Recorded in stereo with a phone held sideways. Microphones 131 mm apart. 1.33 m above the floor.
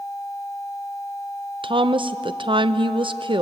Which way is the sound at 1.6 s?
40° right (ahead or behind).